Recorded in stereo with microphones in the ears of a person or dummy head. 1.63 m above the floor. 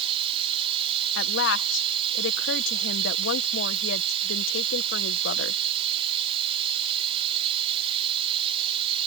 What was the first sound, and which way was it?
Running water, 25° right (ahead or behind).